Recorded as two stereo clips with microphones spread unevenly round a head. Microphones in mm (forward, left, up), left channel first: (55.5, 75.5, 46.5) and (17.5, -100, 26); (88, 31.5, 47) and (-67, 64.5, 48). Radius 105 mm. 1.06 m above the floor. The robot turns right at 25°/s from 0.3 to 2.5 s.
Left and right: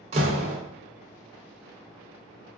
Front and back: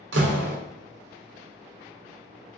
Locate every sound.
0.1 s a door slam: 165° right, 0.6 m; by 0.6 s 160° right, 0.6 m